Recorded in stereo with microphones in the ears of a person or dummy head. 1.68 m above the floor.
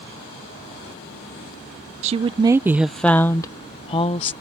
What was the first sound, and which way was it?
A woman speaking, 35° right (ahead or behind).